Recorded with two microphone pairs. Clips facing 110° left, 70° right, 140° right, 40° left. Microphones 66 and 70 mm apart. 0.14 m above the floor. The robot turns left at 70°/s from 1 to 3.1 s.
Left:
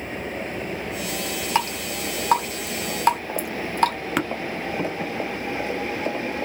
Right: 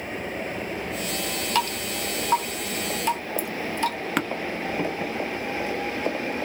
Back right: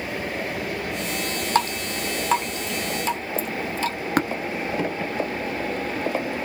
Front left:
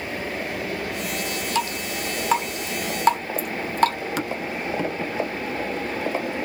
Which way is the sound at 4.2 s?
160° right.